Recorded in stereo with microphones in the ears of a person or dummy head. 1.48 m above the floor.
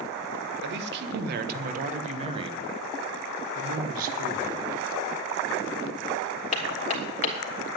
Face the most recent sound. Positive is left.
turn(degrees=35)  # may be behind; listen again after turning